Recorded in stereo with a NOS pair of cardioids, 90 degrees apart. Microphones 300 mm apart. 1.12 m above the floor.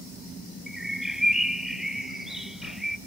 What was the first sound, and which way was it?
A bird, straight ahead.